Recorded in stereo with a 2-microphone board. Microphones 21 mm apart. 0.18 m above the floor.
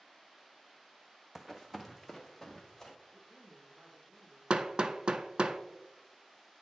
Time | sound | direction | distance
1.4 | running footsteps | 20° right (ahead or behind) | 0.5 m
3.1 | a woman speaking | 40° right (ahead or behind) | 2.0 m
4.5 | hammering | 55° right (ahead or behind) | 0.5 m